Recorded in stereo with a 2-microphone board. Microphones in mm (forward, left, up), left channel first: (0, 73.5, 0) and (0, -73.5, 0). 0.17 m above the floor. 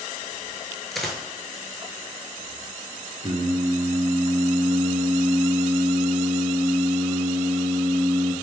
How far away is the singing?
About 0.6 m.